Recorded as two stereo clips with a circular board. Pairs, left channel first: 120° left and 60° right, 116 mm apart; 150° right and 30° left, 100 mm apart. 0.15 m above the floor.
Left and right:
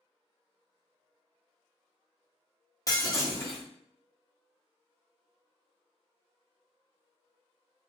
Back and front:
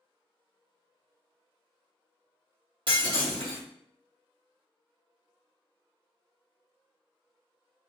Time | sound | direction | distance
2.9 | breaking glass | 60° left | 1.7 m